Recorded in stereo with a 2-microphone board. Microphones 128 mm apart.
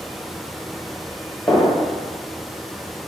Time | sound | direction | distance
1.5 | a gunshot | 15° left (ahead or behind) | 1.6 m